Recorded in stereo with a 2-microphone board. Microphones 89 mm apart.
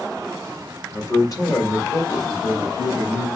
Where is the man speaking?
35° left (ahead or behind), 1.2 m; by 3.3 s 60° left (ahead or behind), 2 m.